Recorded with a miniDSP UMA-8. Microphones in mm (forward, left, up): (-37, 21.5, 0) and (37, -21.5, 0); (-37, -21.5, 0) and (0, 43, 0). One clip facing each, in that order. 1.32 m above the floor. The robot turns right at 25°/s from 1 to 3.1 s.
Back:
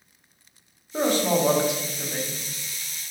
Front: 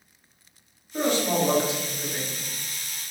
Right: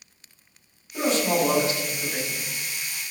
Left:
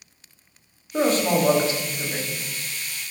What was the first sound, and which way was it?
A man speaking, 100° left.